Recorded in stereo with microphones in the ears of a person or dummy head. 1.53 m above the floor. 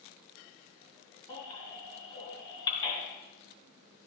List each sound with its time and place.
1.3 s a baby crying: 20° left (ahead or behind), 3 m